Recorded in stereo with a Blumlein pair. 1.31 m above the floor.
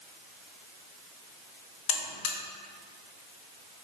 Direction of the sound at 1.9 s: 50° left.